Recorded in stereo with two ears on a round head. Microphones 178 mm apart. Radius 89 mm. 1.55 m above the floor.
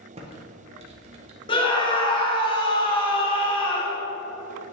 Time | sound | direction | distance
0.1 | typing on a keyboard | 30° right (ahead or behind) | 1.4 m
1.5 | a scream | 25° left (ahead or behind) | 1.9 m